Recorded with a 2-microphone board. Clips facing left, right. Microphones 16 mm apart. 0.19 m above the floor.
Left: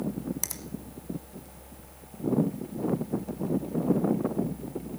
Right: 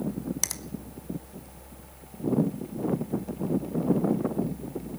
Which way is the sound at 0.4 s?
30° right (ahead or behind).